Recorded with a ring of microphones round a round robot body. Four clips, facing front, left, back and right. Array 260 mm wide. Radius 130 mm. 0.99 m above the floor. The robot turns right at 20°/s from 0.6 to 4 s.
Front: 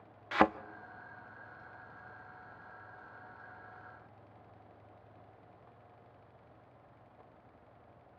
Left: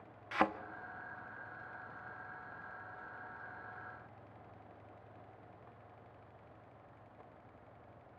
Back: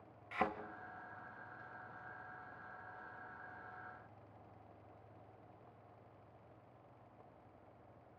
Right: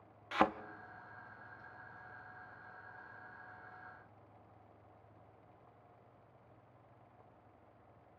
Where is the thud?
5° right, 0.8 m.